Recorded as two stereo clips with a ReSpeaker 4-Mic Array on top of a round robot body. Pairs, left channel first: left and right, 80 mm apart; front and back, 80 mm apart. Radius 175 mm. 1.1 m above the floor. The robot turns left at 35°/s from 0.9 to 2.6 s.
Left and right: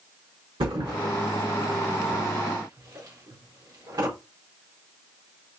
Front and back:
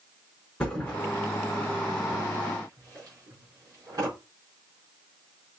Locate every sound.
0.6 s a thud: 80° right, 5 m; by 4.1 s 140° right, 5 m